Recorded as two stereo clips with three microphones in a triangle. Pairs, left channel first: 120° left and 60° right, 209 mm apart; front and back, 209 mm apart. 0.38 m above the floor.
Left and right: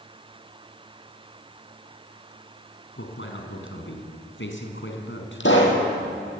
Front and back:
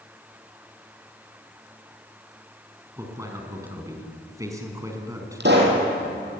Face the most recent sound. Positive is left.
turn(degrees=145)